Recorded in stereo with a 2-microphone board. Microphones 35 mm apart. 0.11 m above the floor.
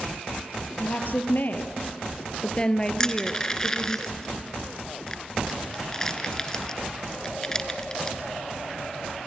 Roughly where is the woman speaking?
Left.